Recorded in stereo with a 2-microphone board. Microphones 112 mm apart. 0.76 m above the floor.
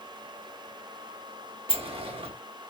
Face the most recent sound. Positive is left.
turn(degrees=-60)  # may be behind; listen again after turning